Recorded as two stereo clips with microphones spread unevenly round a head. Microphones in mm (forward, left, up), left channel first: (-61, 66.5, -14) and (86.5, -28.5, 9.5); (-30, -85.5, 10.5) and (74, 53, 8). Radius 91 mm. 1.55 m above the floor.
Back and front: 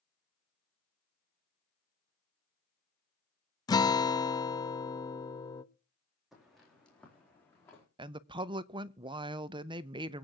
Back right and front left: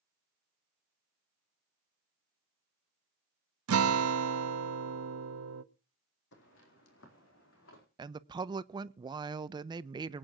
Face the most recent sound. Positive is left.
turn(degrees=0)